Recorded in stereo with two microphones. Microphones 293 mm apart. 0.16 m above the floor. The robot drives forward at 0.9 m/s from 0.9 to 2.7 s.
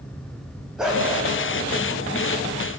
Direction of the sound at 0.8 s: Centre (ahead or behind).